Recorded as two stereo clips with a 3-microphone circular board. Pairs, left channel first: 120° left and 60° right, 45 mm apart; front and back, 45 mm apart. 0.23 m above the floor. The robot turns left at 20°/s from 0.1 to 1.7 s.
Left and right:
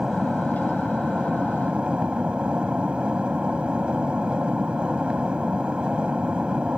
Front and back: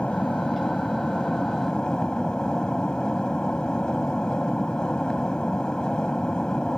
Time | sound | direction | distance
0.0 | an aircraft | 10° right | ?